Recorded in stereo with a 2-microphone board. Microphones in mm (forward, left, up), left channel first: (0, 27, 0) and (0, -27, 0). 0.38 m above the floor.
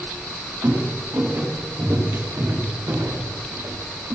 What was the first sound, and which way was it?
Footsteps, 55° right (ahead or behind).